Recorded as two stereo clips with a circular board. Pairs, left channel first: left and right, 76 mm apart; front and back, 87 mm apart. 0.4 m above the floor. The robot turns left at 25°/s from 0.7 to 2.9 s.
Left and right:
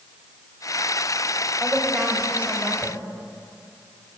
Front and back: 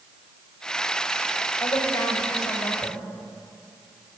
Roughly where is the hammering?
I don't hear hammering.